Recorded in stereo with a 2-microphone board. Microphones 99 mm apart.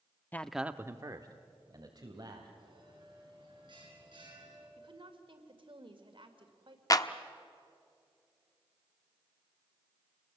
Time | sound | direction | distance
0.3 | a man speaking | 20° left (ahead or behind) | 0.7 m
2.6 | a bell | 50° right (ahead or behind) | 8.5 m
4.8 | a woman speaking | 60° right (ahead or behind) | 2.5 m
6.9 | a clap | 40° left (ahead or behind) | 0.8 m